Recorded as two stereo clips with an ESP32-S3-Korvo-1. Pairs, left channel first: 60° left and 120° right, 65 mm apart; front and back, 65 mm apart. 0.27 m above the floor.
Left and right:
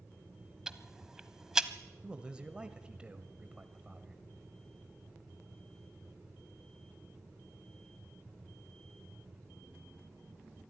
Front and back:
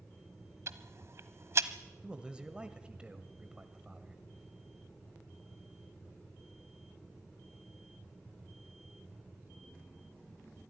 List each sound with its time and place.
0.7 s ticking: 165° left, 1.0 m
2.0 s a man speaking: 150° right, 1.1 m